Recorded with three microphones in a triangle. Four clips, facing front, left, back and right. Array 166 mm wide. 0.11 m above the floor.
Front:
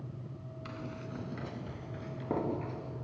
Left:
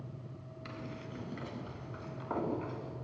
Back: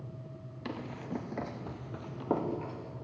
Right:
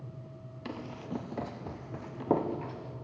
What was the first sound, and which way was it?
Running footsteps, 145° right.